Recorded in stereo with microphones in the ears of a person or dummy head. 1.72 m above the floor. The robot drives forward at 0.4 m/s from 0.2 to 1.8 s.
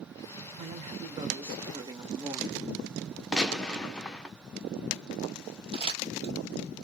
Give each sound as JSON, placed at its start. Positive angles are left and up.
{"t": 0.6, "sound": "a man speaking", "side_deg": -25, "distance_m": 1.2}
{"t": 3.3, "sound": "a gunshot", "side_deg": 10, "distance_m": 0.7}
{"t": 5.7, "sound": "crumpling", "side_deg": -35, "distance_m": 1.7}